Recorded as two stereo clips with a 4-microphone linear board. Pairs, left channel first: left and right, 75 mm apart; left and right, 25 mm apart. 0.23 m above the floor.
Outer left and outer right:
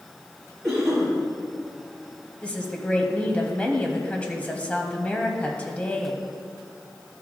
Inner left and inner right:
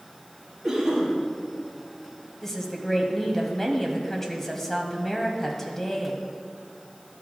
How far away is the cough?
About 3.5 m.